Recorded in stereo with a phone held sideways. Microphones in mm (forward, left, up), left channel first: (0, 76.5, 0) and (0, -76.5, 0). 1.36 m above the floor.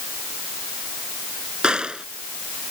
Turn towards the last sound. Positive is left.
turn(degrees=-5)  # may be behind; listen again after turning